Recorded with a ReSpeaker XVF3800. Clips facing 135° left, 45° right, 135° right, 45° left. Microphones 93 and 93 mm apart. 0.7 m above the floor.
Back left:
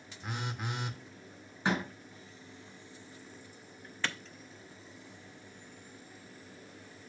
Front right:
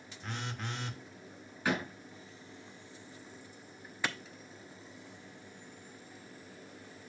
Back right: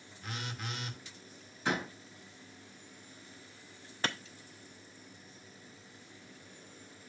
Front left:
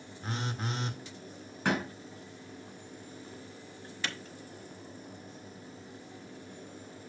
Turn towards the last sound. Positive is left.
turn(degrees=-120)